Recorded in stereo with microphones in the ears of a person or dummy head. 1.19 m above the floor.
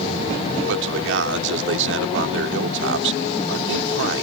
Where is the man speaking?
70° right (ahead or behind).